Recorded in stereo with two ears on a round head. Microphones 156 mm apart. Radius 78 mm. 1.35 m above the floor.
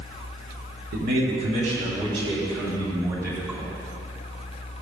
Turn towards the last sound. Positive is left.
turn(degrees=-10)  # may be behind; listen again after turning